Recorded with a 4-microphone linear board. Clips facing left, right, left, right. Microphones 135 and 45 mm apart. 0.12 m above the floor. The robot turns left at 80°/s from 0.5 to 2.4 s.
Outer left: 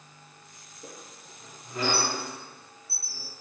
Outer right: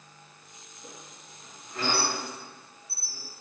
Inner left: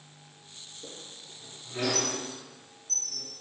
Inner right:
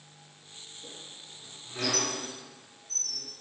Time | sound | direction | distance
0.8 | a squeak | 55° left (ahead or behind) | 0.7 m